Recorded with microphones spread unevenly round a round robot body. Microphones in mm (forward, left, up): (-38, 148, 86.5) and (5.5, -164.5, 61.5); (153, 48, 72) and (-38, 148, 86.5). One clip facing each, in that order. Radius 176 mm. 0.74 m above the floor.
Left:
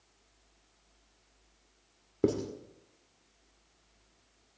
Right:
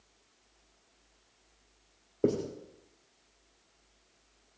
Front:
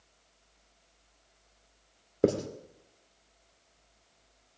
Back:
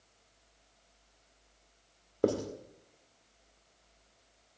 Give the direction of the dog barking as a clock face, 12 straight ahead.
I don't hear a dog barking.